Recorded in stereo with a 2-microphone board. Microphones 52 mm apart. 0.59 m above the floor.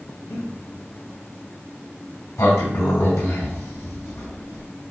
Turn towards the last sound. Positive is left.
turn(degrees=75)  # may be behind; listen again after turning